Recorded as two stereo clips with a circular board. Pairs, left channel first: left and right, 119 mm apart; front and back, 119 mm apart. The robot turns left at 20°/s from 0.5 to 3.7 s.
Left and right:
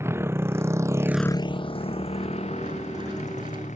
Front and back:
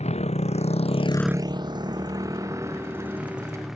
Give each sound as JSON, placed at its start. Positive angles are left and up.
{"t": 0.0, "sound": "a motorcycle", "azimuth_deg": -20}